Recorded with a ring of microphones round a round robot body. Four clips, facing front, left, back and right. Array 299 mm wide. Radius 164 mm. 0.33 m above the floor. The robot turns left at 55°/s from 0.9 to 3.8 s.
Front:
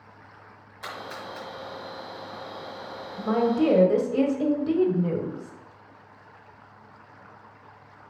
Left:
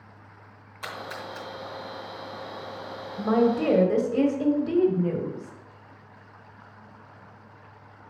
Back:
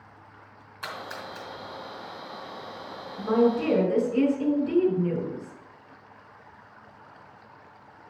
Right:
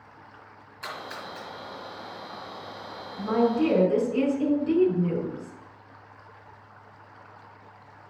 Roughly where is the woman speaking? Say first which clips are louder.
Left 1 dB, even; left.